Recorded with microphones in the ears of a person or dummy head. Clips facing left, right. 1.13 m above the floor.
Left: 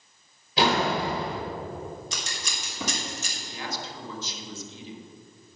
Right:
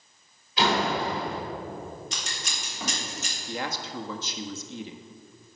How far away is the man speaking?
About 1.4 m.